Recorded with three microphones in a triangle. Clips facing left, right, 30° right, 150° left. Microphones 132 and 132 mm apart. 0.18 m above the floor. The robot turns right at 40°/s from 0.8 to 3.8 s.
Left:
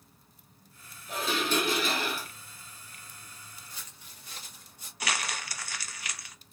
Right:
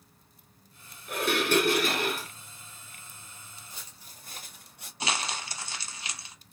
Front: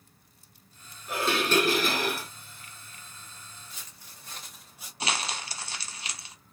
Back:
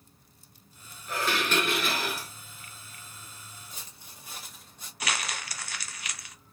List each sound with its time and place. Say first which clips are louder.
1.1 s dishes clattering: right 4 dB, front 3 dB; 100° right, 1.7 m; by 2.3 s 50° right, 1.7 m
3.7 s footsteps: even, back 1 dB; 160° right, 1.7 m; by 4.9 s 110° right, 2.5 m
5.0 s crumpling: right 2 dB, front 2 dB; 55° right, 0.8 m